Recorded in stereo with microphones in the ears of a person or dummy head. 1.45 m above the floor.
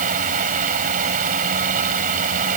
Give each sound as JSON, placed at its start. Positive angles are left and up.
{"t": 0.0, "sound": "a fan", "side_deg": -45}